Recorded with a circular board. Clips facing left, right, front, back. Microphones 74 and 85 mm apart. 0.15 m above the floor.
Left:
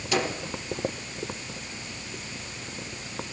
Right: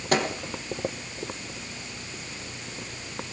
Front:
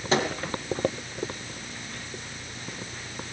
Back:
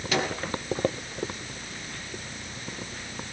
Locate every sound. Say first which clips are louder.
0.1 s a microwave: right 2 dB, front 3 dB; 55° right, 3 m